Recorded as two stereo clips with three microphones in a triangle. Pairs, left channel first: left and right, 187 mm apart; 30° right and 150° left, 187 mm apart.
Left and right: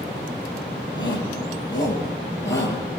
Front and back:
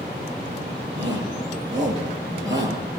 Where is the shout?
80° left, 7 m.